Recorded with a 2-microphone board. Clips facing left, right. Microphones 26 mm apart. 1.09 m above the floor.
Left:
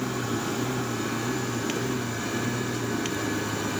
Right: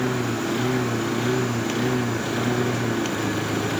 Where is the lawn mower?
60° right (ahead or behind); by 3.8 s 65° right (ahead or behind).